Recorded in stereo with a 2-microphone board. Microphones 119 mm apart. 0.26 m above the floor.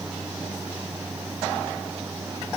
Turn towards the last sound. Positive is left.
No sound to turn to.